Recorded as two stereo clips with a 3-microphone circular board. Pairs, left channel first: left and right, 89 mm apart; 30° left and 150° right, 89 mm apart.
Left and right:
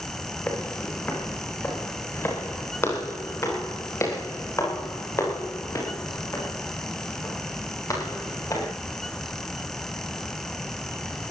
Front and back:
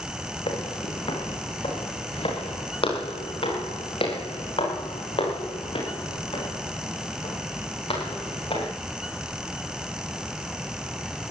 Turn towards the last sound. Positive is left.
turn(degrees=40)